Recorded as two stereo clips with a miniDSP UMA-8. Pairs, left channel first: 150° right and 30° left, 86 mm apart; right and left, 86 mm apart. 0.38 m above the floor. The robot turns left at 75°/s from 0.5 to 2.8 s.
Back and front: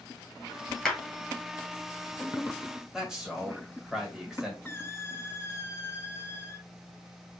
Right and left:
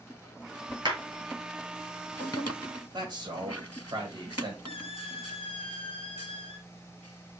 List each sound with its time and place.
0.8 s a clap: 125° left, 2.5 m; by 1.0 s 115° left, 2.5 m
2.9 s a man speaking: 110° left, 1.7 m
4.7 s a squeak: 90° right, 0.6 m